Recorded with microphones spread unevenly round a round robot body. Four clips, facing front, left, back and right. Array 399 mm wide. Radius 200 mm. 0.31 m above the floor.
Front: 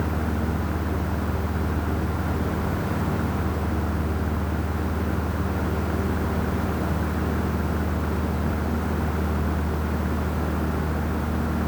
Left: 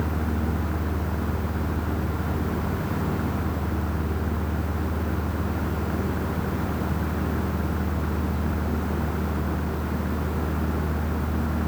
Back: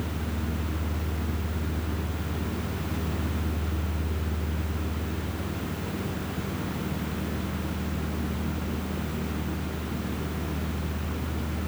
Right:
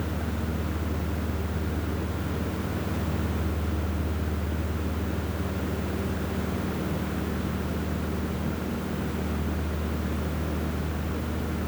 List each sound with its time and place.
Only background noise.